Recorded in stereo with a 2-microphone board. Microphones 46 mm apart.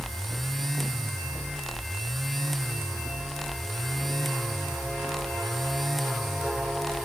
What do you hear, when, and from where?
Only background noise.